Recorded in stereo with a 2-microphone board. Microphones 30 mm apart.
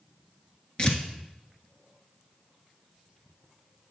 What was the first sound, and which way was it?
Tearing paper, 30° left (ahead or behind).